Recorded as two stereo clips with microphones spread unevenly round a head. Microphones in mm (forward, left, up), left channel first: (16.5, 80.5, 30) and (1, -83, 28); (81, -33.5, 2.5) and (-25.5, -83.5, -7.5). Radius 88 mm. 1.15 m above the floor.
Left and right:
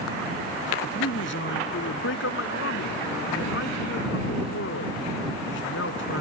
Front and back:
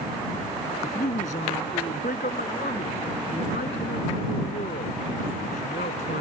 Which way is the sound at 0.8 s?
70° left.